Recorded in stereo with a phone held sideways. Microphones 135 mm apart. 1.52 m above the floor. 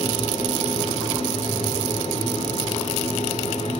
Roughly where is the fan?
Left.